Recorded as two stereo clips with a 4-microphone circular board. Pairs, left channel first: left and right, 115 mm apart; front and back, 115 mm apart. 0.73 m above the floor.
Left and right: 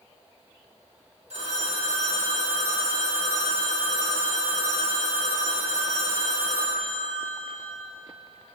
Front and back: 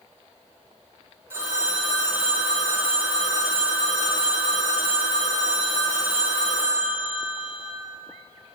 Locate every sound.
1.3 s a phone ringing: 110° right, 1.1 m